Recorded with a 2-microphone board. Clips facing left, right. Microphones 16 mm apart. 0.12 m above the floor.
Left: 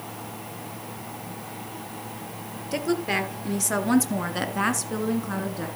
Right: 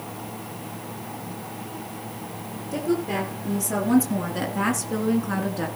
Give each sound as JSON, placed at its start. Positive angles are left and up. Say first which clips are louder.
{"t": 2.7, "sound": "a woman speaking", "louder": "even", "side_deg": 45, "distance_m": 2.5}